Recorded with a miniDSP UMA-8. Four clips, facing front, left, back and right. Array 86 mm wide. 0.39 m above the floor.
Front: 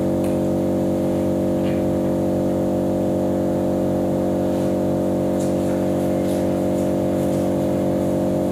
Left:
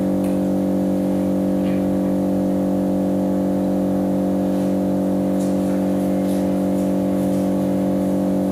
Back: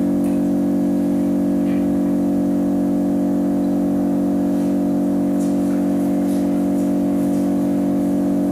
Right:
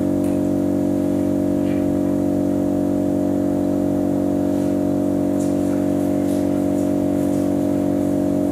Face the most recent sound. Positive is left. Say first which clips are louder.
# right 1 dB, back 2 dB
turn(degrees=20)